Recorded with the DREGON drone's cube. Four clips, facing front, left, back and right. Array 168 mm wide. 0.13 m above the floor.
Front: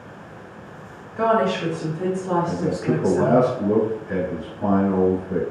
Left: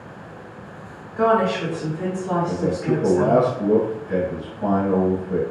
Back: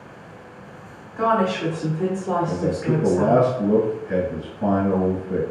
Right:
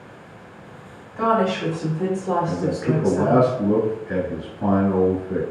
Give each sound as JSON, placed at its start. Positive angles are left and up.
{"t": 1.2, "sound": "a woman speaking", "azimuth_deg": 70, "distance_m": 1.8}
{"t": 2.5, "sound": "a man speaking", "azimuth_deg": -85, "distance_m": 1.2}